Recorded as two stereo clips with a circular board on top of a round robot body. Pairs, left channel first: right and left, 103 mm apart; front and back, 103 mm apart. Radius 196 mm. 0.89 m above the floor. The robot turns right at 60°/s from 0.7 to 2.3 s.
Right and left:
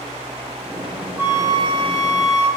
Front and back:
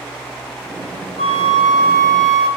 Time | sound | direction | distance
1.2 | a flute | 20° left | 1.3 m